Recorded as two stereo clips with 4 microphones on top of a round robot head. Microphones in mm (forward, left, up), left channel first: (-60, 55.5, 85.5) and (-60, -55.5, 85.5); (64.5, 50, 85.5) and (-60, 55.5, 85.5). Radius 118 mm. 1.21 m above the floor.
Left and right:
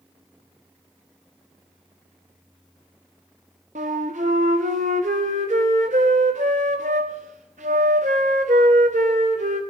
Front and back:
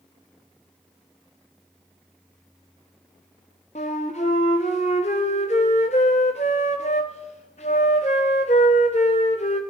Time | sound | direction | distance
3.8 | a flute | 55° right | 0.6 m